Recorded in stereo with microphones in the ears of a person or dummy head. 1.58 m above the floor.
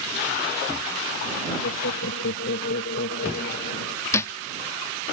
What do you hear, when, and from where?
1.6 s laughter: 70° left (ahead or behind); by 4.0 s 50° left (ahead or behind)
4.1 s a thud: 15° left (ahead or behind)